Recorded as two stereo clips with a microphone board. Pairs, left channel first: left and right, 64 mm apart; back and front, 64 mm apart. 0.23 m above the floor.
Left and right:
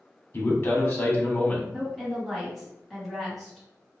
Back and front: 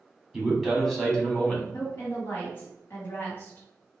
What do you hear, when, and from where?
0.3 s a man speaking: 80° left, 1.3 m; by 1.6 s 130° left, 1.2 m
1.7 s a woman speaking: straight behind, 1.7 m